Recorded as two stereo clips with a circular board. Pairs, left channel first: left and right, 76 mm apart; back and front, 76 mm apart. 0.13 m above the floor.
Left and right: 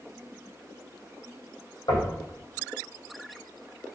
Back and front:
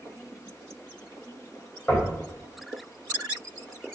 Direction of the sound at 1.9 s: 110° left.